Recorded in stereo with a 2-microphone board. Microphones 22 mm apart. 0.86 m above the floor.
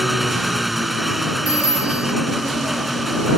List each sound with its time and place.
0.0 s an engine running: 5° right (ahead or behind)
1.5 s a phone ringing: 85° right